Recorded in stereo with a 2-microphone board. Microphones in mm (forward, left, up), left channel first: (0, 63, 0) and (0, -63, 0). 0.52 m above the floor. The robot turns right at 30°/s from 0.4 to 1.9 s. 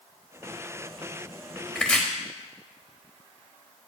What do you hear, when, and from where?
1.8 s chopping: 5° left (ahead or behind), 1.2 m; by 2.0 s 10° left (ahead or behind), 1.2 m